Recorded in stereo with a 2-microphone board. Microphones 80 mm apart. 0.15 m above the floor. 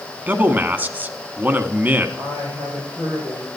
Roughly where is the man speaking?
Right.